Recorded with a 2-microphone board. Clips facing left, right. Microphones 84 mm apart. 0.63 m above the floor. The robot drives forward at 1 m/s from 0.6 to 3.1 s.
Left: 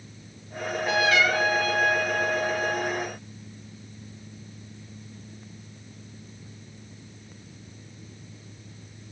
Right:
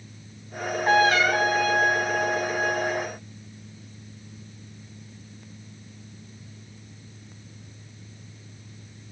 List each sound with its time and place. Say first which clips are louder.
0.6 s a trumpet: right 5 dB; 45° right (ahead or behind), 3.5 m; by 3.0 s 30° right (ahead or behind), 5.5 m